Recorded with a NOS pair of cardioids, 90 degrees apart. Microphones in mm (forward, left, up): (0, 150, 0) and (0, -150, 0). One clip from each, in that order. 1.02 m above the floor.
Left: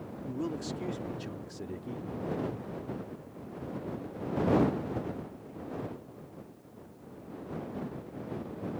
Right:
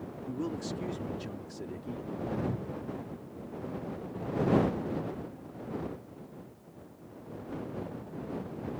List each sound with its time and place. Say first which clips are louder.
0.3 s a man speaking: even; 5° left
2.5 s a cupboard door: right 1 dB; 50° right